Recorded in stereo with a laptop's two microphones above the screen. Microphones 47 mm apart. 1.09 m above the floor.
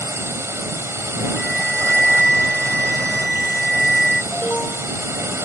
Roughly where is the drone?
Right.